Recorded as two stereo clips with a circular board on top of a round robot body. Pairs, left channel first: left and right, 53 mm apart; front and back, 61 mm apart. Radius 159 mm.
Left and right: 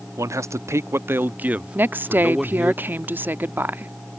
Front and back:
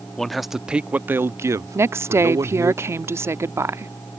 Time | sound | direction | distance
0.2 | a man speaking | 85° right | ?
1.8 | a woman speaking | 140° right | ?